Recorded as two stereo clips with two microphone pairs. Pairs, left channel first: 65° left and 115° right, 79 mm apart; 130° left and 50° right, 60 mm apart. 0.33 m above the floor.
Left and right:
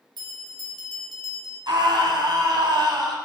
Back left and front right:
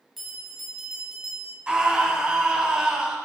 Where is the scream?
120° right, 2.5 m.